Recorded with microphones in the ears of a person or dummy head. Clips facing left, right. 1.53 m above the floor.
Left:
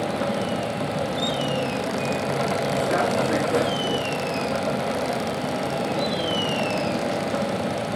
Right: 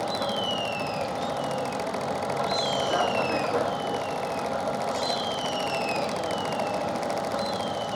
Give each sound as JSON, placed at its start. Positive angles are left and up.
{"t": 0.0, "sound": "a vehicle", "side_deg": 35}